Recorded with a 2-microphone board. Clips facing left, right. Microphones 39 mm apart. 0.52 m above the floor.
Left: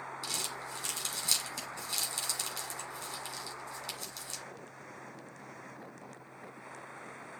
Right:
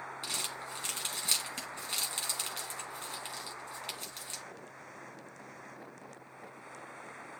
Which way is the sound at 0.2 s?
35° right (ahead or behind).